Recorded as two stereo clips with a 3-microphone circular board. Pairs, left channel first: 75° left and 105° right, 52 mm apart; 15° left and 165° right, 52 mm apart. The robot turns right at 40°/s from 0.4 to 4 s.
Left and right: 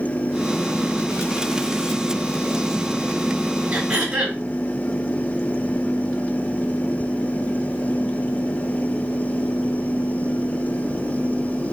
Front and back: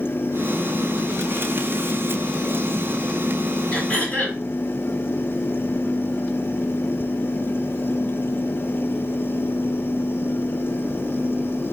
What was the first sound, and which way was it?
Throat clearing, 50° right.